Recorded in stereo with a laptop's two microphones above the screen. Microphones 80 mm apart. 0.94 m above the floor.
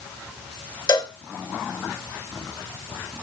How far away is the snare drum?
I don't hear a snare drum.